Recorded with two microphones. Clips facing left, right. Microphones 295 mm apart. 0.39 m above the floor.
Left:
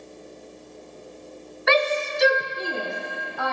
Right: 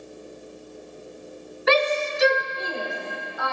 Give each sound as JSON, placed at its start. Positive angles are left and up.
{"t": 1.7, "sound": "a shout", "side_deg": -40, "distance_m": 1.1}